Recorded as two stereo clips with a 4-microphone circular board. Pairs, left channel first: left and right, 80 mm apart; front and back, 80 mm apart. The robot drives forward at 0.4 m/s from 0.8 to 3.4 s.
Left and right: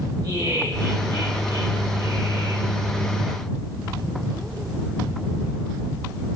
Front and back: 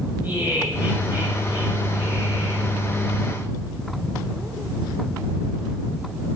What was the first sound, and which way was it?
Laughter, 110° right.